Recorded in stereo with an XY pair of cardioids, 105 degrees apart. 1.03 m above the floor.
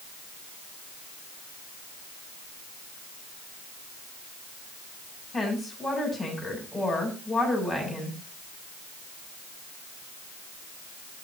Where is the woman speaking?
Straight ahead, 7.5 m.